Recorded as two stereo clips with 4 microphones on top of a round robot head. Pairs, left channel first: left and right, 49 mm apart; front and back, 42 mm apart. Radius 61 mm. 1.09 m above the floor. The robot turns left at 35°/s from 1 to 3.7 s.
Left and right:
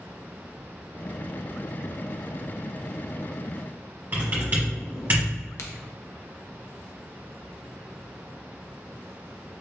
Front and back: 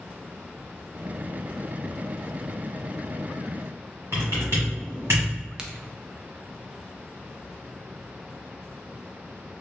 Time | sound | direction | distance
4.1 | typing on a keyboard | 130° right | 1.3 m
5.6 | a crack | 110° left | 0.7 m